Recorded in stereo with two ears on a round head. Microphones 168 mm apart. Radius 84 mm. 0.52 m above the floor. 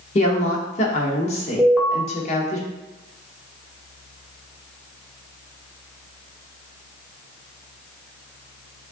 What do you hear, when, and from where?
0.1 s a woman speaking: 35° left (ahead or behind), 0.9 m
1.6 s an alarm: 5° right (ahead or behind), 0.9 m